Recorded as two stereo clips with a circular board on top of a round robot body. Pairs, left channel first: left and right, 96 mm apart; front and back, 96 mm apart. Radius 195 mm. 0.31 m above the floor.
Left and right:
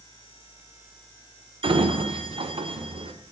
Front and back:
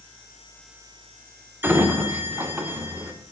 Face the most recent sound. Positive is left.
turn(degrees=-110)